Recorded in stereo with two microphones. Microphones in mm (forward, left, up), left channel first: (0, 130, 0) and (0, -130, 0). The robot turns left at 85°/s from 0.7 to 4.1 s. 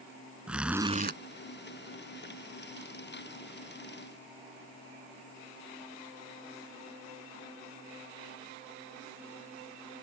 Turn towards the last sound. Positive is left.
turn(degrees=65)